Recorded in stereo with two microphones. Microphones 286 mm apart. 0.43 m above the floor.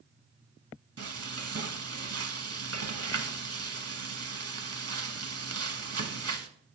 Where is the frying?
55° right (ahead or behind), 0.9 m.